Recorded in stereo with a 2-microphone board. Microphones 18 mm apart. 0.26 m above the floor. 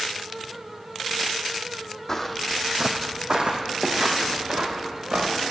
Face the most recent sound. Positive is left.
turn(degrees=-80)